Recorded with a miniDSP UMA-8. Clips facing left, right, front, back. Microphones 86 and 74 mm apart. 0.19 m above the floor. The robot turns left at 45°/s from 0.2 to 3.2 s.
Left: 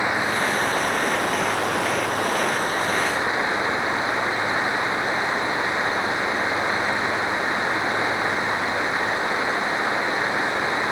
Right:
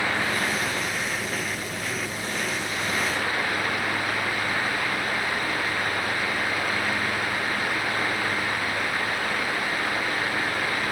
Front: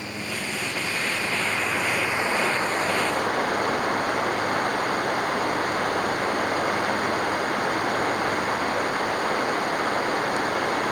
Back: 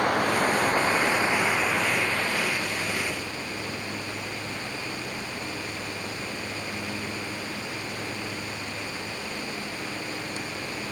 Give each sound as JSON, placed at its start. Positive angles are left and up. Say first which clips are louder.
{"t": 0.0, "sound": "running water", "louder": "left 3 dB, back 9 dB", "azimuth_deg": 160}